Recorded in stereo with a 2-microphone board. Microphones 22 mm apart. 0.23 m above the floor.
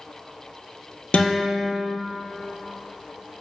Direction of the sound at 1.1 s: 60° left (ahead or behind).